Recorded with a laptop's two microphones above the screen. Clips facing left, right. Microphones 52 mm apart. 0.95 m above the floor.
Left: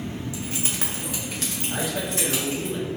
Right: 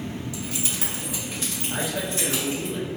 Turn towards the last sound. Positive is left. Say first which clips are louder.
# even
turn(degrees=0)  # may be behind; listen again after turning